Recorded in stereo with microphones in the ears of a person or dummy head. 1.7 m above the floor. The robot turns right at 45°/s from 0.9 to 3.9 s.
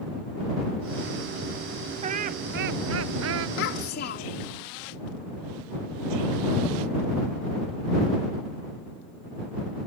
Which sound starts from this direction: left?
A child speaking, at 3.6 s.